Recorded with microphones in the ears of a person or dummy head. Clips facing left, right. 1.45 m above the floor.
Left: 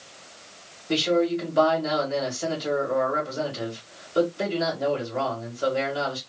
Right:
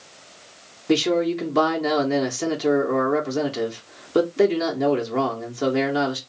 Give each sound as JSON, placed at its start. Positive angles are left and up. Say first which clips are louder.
{"t": 0.9, "sound": "a man speaking", "louder": "right 3 dB", "side_deg": -75, "distance_m": 1.5}